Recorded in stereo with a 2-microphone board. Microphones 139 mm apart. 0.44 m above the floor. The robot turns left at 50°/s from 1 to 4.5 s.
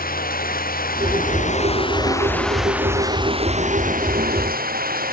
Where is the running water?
80° left; by 5.1 s 95° right.